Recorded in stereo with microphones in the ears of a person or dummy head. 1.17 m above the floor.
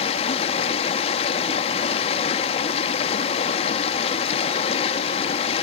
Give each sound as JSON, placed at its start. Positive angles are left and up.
{"t": 0.0, "sound": "running water", "side_deg": 30, "distance_m": 1.1}